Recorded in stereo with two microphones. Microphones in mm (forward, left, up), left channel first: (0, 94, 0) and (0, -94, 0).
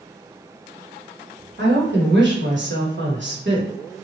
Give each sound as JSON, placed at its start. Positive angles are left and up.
{"t": 1.6, "sound": "a woman speaking", "side_deg": -75, "distance_m": 1.1}